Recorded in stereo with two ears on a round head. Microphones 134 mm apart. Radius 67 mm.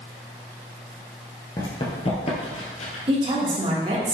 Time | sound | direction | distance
1.6 | running footsteps | 30° left (ahead or behind) | 1.7 m
3.1 | a woman speaking | 35° right (ahead or behind) | 1.7 m